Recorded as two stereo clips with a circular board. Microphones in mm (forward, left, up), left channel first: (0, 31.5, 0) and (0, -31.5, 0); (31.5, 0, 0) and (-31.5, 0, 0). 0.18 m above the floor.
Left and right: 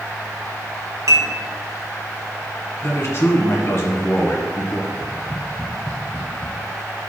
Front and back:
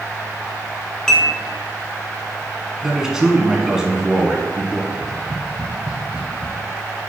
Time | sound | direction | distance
1.1 | dishes clattering | 80° right | 1.3 m
2.8 | a man speaking | 105° left | 1.5 m
4.9 | tapping | 130° left | 1.0 m